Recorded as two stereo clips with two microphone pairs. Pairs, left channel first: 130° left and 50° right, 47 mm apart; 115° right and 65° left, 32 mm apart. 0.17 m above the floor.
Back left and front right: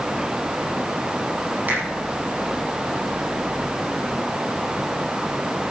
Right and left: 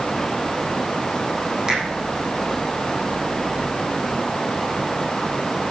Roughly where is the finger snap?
Ahead.